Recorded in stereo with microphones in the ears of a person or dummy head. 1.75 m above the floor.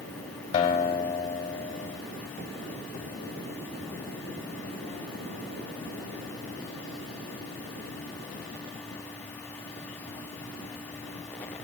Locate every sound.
0.5 s a guitar: 20° left (ahead or behind), 3 m